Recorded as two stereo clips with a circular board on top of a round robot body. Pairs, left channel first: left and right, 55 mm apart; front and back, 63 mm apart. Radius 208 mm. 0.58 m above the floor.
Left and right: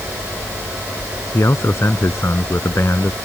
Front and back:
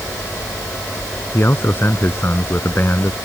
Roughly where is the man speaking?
Ahead left.